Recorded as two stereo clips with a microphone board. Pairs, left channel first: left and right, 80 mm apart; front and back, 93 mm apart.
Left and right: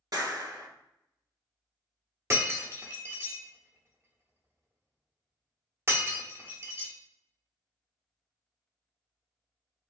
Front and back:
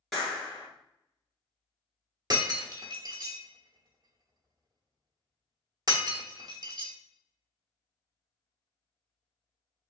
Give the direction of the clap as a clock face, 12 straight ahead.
3 o'clock.